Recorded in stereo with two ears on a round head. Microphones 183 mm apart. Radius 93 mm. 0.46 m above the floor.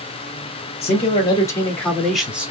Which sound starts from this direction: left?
A man speaking, at 0.8 s.